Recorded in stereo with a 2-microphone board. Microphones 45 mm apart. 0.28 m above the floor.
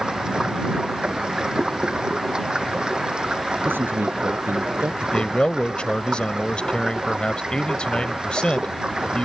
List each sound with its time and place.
0.0 s running water: 20° right (ahead or behind)
3.6 s a man speaking: 50° right (ahead or behind)
5.0 s a man speaking: 20° left (ahead or behind)